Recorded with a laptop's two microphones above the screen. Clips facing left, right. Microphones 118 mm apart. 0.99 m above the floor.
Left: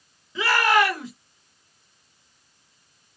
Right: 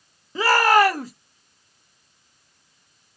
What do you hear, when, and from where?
0.3 s a shout: 40° right (ahead or behind), 0.9 m